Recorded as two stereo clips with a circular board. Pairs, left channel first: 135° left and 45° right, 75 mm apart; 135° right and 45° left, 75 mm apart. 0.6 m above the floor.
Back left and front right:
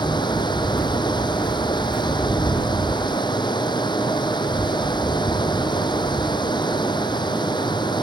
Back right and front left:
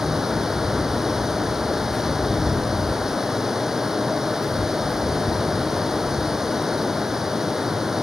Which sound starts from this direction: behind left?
Running water, at 0.0 s.